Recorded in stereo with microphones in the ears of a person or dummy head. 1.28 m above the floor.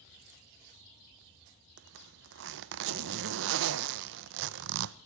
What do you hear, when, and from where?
1.8 s a zipper: 60° right (ahead or behind), 0.5 m